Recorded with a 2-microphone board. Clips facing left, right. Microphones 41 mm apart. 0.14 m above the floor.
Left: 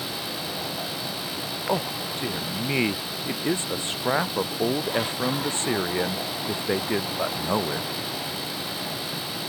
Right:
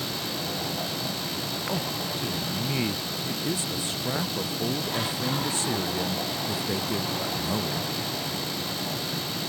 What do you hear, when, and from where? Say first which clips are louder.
1.7 s a man speaking: left 6 dB; 40° left (ahead or behind)